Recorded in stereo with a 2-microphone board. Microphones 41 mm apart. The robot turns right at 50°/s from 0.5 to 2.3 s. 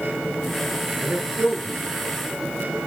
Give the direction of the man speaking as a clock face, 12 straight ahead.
4 o'clock.